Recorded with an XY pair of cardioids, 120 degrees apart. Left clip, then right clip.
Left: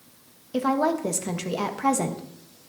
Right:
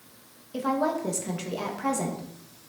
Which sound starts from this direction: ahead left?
A woman speaking, at 0.5 s.